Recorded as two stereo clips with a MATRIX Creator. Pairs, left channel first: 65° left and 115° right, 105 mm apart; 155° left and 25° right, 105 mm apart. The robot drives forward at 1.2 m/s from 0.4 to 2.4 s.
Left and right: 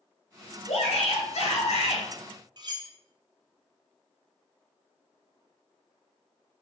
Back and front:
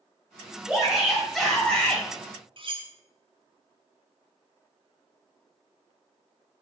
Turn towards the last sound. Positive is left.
turn(degrees=-65)